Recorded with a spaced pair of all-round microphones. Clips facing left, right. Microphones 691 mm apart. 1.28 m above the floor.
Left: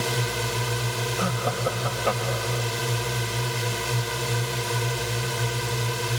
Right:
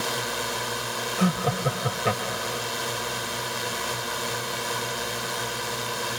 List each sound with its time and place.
0.0 s a drone: 55° left (ahead or behind)
1.2 s laughter: 50° right (ahead or behind)